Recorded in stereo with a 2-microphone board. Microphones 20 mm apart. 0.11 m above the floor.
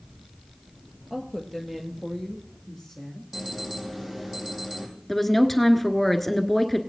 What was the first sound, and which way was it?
A woman speaking, 15° right (ahead or behind).